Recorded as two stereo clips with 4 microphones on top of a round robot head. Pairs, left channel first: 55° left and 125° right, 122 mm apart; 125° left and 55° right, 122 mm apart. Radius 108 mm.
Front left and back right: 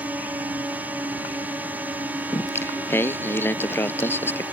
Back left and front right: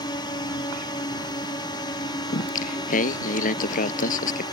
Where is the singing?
130° left.